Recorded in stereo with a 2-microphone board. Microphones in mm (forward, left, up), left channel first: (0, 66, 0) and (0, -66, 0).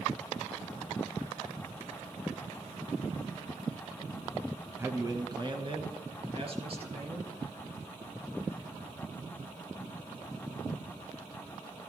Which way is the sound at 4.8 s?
20° right (ahead or behind).